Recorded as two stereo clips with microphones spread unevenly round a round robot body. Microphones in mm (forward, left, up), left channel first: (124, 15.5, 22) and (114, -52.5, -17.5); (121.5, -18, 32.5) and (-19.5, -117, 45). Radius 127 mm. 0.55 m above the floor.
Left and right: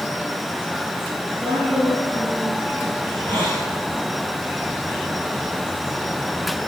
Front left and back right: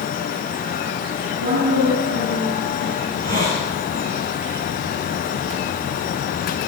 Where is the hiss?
150° right, 9 m.